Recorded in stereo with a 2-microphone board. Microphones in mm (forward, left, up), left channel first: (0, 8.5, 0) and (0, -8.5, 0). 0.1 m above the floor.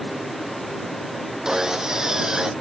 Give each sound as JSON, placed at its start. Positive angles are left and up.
{"t": 1.4, "sound": "sawing", "side_deg": -40}